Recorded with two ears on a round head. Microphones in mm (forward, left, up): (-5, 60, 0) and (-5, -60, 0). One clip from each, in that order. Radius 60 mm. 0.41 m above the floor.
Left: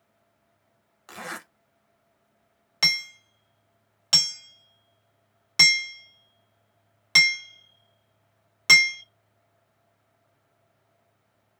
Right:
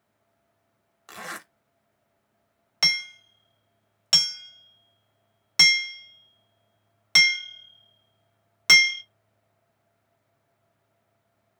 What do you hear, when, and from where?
1.1 s a zipper: 10° right (ahead or behind), 0.5 m
2.8 s hammering: 15° right (ahead or behind), 0.8 m